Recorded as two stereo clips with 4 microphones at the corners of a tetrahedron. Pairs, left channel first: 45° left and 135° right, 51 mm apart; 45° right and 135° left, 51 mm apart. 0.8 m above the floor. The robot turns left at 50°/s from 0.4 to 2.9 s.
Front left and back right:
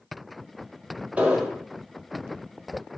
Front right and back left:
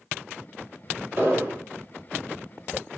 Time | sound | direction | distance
1.2 | an explosion | 165° left | 2 m